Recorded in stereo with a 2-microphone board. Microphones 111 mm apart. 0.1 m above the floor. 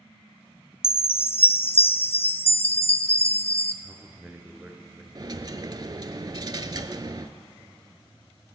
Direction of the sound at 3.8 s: 15° right (ahead or behind).